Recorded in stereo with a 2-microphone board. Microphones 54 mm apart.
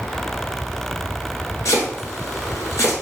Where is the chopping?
75° left (ahead or behind), 1.3 m.